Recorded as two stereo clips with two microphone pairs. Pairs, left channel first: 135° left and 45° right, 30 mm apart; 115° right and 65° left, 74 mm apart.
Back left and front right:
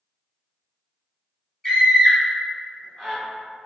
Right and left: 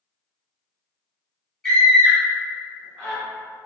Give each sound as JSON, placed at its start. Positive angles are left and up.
{"t": 1.6, "sound": "a scream", "azimuth_deg": -175, "distance_m": 1.5}